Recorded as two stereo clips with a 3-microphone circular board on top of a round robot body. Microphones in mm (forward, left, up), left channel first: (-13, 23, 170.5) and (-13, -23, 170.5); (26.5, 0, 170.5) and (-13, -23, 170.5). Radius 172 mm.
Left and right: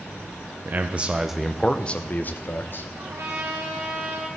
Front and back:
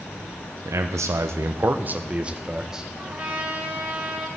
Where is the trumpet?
90° right, 2.5 m.